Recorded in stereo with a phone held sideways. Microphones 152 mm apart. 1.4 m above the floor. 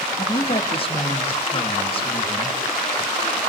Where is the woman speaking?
35° left (ahead or behind), 2 m.